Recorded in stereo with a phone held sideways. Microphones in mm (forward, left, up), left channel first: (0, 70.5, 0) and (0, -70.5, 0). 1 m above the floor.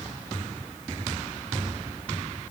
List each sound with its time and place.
Only background noise.